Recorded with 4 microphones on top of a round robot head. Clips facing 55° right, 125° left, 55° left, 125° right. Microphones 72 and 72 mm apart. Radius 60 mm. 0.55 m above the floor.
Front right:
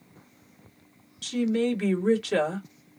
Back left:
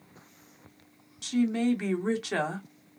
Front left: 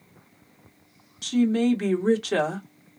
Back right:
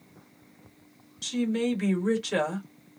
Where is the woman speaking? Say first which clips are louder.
Front right 1 dB, front left 6 dB; 60° left, 1.8 m.